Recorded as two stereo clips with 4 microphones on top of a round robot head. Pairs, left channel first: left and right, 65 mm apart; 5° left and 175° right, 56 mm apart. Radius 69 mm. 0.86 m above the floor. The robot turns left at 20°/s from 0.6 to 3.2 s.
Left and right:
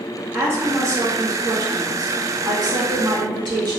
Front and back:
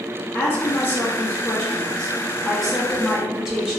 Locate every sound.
0.3 s a woman speaking: 40° right, 1.4 m; by 3.8 s 95° right, 1.4 m